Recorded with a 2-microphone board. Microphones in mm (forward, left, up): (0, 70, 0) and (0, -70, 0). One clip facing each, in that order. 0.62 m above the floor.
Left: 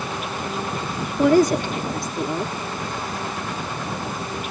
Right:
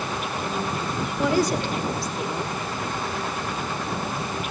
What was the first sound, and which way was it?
A woman speaking, 45° left (ahead or behind).